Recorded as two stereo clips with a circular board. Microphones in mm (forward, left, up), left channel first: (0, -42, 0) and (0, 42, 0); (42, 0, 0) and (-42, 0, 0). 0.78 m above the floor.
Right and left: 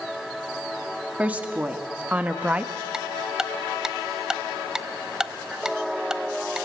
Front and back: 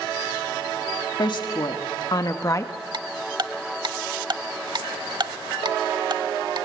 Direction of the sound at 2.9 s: 170° left.